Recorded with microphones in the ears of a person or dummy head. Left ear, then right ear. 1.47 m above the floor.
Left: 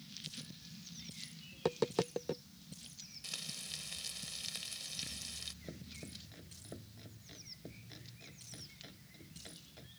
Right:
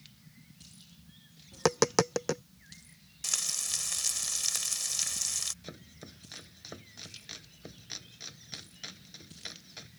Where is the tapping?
55° right (ahead or behind).